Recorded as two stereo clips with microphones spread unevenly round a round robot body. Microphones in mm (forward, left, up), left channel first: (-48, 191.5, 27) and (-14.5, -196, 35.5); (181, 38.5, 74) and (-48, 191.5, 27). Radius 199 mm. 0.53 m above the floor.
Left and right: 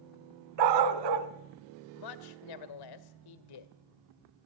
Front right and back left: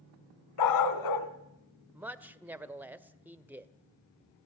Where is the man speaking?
65° left, 1.7 m.